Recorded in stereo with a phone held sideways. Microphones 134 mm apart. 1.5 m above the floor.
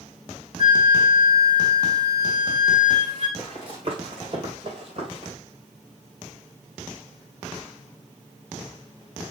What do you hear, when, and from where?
0.6 s a flute: 45° right (ahead or behind), 4 m
3.4 s running footsteps: 40° right (ahead or behind), 3.5 m